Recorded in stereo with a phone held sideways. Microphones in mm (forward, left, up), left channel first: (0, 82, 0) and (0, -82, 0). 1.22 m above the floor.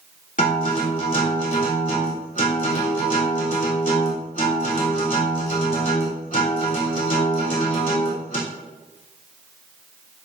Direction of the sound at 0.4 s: 55° left (ahead or behind).